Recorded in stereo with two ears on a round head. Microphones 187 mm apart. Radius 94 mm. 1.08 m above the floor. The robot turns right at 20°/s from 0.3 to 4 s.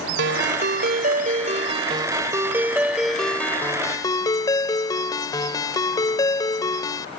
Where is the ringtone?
55° right; by 7.1 s 20° left.